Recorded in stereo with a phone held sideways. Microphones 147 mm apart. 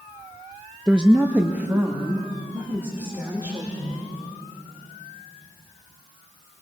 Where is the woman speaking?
5° right (ahead or behind), 0.6 m; by 4.1 s 15° right (ahead or behind), 4 m.